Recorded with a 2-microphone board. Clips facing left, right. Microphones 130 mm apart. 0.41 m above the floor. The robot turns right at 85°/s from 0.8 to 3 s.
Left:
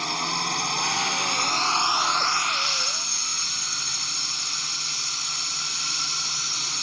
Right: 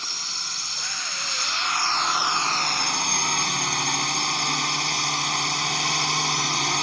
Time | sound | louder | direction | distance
0.0 | a drone | left 12 dB | 70° left | ?